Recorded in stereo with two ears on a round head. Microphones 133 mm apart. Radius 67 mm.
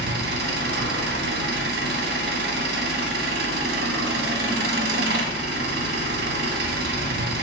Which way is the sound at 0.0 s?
75° right (ahead or behind).